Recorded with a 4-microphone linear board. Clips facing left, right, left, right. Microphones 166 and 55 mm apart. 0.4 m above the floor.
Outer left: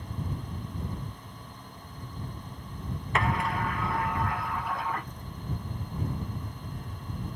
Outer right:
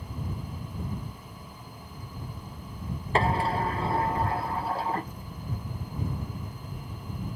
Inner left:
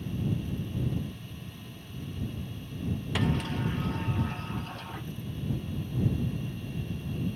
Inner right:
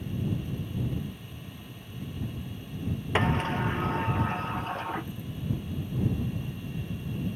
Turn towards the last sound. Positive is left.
turn(degrees=-30)  # may be behind; listen again after turning